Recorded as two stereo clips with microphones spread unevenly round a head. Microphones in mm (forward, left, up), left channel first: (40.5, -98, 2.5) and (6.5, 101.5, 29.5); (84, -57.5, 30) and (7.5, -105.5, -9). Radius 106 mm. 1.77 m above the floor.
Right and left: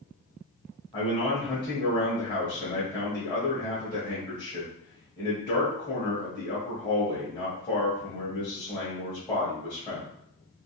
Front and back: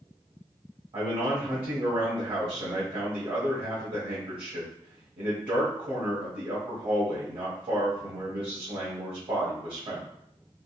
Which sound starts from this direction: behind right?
A man speaking, at 0.9 s.